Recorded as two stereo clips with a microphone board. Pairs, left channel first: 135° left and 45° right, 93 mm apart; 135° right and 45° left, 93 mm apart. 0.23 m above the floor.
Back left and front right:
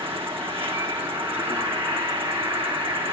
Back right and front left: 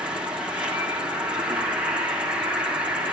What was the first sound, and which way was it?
An insect, 35° right.